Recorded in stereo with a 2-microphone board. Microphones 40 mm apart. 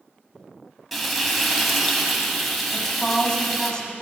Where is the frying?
5° right (ahead or behind), 1.0 m.